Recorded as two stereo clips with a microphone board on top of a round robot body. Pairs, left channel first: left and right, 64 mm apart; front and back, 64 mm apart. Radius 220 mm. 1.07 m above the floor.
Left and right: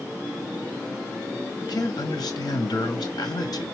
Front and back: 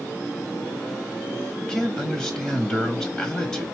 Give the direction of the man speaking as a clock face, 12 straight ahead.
9 o'clock.